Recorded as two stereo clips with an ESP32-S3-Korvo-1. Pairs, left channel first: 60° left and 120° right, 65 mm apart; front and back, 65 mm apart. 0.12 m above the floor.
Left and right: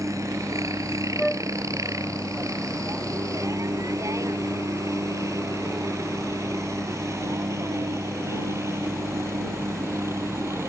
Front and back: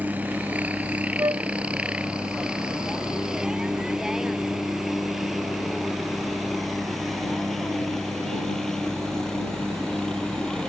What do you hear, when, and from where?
0.0 s a helicopter: 120° right; by 10.7 s 80° right
1.2 s a flute: 150° left